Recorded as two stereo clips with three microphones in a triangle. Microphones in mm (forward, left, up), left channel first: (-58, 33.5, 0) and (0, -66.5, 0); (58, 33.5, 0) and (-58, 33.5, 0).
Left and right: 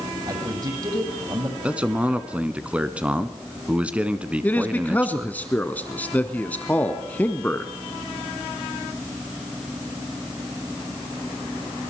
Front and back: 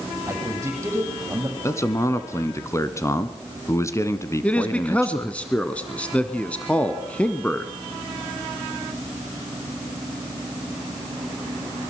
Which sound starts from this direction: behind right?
A man speaking, at 0.3 s.